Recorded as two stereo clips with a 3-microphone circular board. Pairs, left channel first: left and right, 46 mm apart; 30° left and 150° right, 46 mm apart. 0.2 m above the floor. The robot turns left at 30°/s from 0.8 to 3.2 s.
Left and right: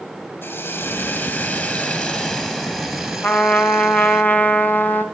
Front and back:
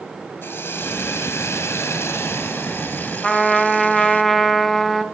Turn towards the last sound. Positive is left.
turn(degrees=105)